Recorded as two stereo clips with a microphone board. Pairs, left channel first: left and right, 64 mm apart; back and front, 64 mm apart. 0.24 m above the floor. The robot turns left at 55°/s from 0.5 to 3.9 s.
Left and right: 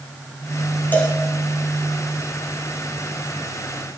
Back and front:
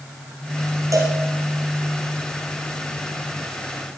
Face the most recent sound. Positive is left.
turn(degrees=-135)